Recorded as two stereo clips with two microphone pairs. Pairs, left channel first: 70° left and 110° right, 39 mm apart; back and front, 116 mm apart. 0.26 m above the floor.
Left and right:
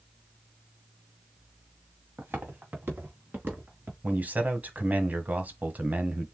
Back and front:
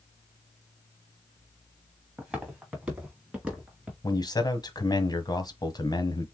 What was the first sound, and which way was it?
Footsteps, 80° right.